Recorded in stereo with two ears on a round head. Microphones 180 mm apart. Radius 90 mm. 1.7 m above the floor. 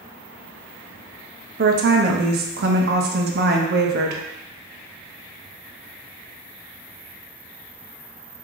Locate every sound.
1.6 s a woman speaking: 50° right (ahead or behind), 0.6 m